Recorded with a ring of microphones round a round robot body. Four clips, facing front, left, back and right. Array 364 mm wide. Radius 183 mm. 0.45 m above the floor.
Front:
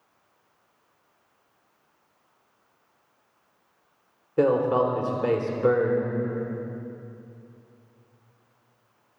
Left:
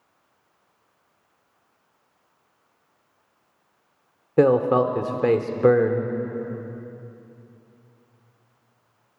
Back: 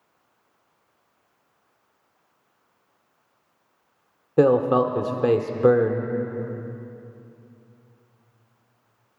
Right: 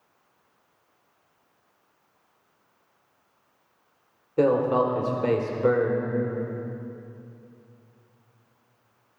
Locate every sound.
4.4 s a man speaking: 135° left, 1.0 m